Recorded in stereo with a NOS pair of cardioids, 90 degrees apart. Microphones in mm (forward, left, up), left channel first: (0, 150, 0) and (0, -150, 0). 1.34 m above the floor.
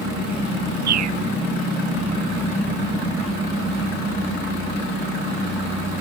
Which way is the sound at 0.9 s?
65° right.